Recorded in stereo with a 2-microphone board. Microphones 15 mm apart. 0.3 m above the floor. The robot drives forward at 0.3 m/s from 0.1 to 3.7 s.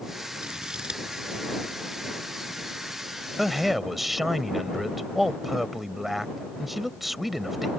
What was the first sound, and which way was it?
Scissors, 70° right (ahead or behind).